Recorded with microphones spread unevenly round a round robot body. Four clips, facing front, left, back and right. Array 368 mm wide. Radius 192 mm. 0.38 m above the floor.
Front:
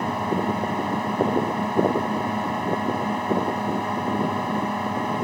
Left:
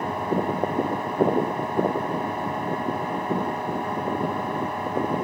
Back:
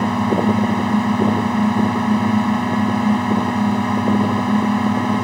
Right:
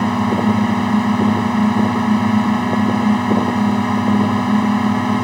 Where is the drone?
115° right.